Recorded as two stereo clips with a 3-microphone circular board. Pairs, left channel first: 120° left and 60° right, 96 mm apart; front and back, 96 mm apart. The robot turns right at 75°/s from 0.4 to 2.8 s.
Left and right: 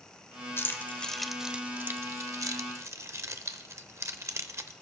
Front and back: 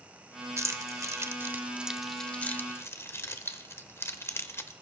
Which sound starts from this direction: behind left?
Keys jangling, at 0.6 s.